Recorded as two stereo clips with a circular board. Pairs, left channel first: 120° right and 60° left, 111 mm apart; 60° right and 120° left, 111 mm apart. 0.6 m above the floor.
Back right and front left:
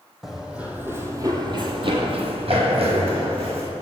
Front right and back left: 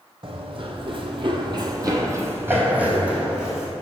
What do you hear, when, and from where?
0.2 s running footsteps: 150° left, 1.1 m; by 3.7 s 35° left, 1.7 m